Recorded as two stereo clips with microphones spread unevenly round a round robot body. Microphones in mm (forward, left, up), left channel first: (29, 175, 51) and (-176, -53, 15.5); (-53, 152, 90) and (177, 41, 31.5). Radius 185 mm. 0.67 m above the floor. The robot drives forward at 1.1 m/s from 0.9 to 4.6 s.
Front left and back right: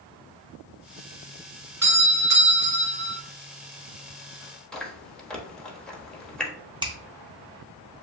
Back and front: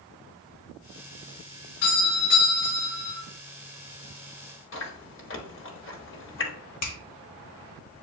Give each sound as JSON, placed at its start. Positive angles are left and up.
{"t": 1.8, "sound": "a doorbell", "azimuth_deg": -175, "distance_m": 3.0}
{"t": 4.7, "sound": "chewing", "azimuth_deg": 145, "distance_m": 1.1}
{"t": 6.8, "sound": "a finger snap", "azimuth_deg": 160, "distance_m": 1.3}